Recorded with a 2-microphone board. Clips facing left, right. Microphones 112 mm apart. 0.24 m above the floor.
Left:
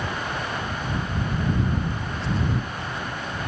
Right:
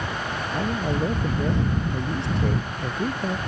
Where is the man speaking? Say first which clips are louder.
Right 4 dB; 80° right; by 3.4 s 50° right (ahead or behind).